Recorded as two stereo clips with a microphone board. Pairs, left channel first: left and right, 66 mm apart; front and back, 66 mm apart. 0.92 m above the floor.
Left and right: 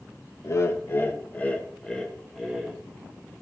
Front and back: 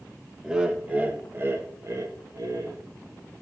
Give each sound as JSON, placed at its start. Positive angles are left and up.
{"t": 0.4, "sound": "laughter", "azimuth_deg": 100, "distance_m": 1.2}